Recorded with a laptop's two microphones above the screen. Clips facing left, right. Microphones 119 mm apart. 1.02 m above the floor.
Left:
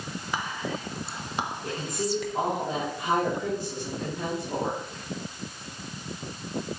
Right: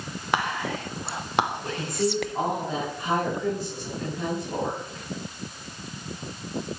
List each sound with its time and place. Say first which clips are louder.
0.3 s whispering: right 6 dB; 65° right (ahead or behind), 0.6 m
1.6 s a woman speaking: right 4 dB; 20° left (ahead or behind), 5 m